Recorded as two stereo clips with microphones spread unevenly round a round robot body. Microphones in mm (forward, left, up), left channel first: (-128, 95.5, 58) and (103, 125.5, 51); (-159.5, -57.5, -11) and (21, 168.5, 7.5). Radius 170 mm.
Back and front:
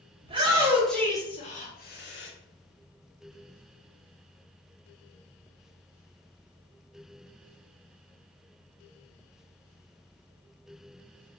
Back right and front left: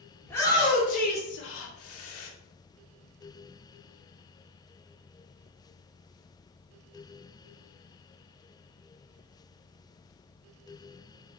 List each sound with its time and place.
0.2 s a shout: 50° right, 0.9 m; by 2.3 s 145° right, 1.1 m